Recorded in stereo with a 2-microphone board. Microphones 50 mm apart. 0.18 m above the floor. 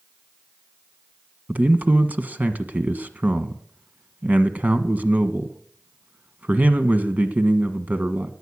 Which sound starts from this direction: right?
A man speaking, at 1.5 s.